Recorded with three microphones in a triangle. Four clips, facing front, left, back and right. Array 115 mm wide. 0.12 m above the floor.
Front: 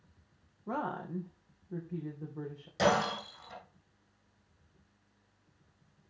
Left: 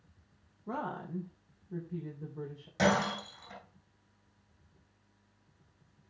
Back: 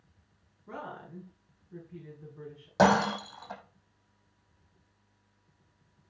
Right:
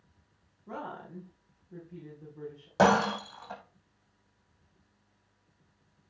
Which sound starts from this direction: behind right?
Breaking glass, at 2.8 s.